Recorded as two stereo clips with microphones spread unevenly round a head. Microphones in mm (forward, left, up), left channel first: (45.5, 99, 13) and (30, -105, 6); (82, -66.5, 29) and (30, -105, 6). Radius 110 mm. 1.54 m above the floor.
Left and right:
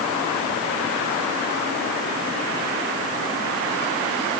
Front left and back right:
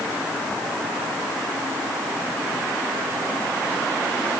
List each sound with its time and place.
Only background noise.